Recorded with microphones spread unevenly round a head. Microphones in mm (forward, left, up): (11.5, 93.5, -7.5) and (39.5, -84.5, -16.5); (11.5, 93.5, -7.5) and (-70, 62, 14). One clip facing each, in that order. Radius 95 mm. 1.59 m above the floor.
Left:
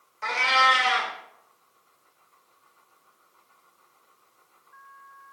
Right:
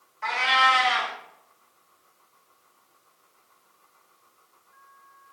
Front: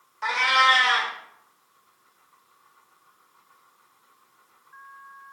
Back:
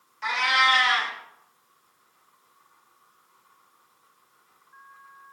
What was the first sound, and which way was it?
A cat meowing, 70° left.